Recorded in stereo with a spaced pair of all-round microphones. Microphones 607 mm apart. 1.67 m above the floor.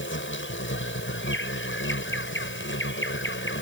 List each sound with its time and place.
0.0 s an insect: 20° left (ahead or behind)